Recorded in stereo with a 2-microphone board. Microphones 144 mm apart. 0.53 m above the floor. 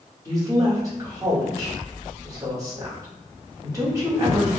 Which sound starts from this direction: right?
A woman speaking, at 0.2 s.